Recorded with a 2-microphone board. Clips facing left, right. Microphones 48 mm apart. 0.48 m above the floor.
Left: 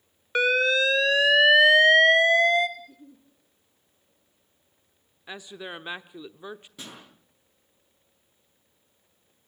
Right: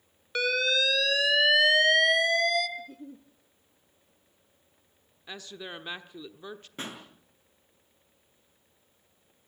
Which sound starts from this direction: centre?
A woman speaking, at 5.3 s.